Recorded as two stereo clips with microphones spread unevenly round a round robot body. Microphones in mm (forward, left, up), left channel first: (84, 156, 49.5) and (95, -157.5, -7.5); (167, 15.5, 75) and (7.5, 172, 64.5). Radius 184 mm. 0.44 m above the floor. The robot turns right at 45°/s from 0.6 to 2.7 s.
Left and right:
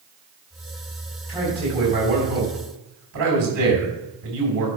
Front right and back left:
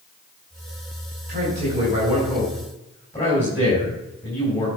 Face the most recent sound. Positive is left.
turn(degrees=-125)